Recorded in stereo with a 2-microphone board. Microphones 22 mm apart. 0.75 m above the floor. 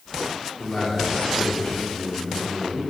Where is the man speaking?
30° left (ahead or behind), 2 m; by 2.8 s 60° left (ahead or behind), 4.5 m.